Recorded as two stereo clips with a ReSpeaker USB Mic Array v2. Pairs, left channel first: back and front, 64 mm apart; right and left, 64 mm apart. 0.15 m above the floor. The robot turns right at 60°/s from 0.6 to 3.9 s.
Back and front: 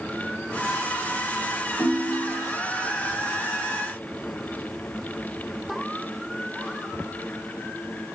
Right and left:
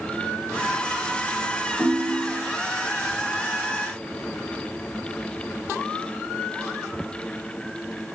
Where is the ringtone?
145° left, 2.0 m; by 2.5 s 170° right, 2.0 m.